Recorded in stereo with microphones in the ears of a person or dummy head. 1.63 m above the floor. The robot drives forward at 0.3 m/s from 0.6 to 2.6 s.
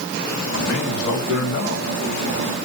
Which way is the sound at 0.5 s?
85° left.